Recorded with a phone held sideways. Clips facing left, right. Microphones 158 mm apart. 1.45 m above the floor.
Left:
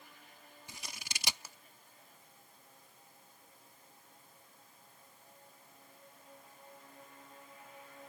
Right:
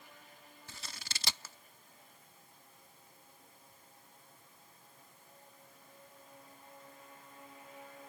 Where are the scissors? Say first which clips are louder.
Left 1 dB; 15° left (ahead or behind).